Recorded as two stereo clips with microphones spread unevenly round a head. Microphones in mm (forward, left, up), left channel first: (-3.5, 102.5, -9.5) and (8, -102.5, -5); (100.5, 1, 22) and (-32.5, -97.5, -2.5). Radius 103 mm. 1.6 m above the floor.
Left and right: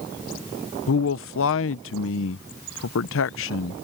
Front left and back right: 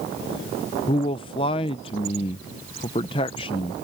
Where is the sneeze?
No sneeze in this recording.